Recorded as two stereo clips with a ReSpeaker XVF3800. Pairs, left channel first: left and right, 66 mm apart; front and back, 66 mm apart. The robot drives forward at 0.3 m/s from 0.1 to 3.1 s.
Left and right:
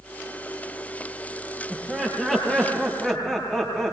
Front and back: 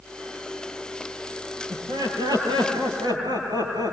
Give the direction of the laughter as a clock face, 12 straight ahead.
6 o'clock.